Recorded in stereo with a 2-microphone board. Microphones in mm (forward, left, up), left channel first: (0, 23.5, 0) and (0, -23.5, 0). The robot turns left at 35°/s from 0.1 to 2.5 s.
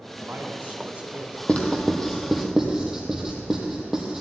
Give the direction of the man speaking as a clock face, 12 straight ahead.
4 o'clock.